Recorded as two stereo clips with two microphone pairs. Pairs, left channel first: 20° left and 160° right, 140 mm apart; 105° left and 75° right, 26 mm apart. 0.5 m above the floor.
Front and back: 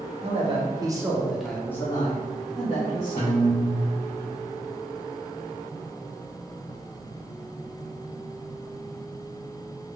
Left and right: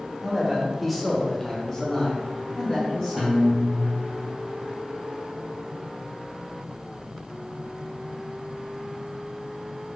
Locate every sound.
0.2 s a man speaking: 145° right, 0.9 m; by 3.6 s 50° left, 1.4 m
3.2 s a guitar: 30° left, 1.9 m